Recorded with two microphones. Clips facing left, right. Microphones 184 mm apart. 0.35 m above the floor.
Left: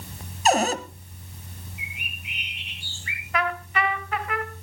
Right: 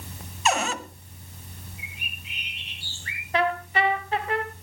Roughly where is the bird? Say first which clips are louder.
Left 2 dB; centre.